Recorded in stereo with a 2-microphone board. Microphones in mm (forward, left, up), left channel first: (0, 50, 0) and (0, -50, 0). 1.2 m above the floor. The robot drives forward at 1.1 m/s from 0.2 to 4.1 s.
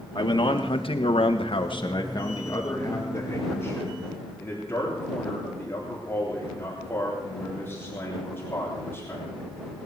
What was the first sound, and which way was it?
A man speaking, 45° left (ahead or behind).